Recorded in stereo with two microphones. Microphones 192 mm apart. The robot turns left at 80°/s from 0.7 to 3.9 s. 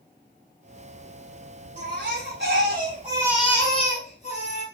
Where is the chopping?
No chopping in this recording.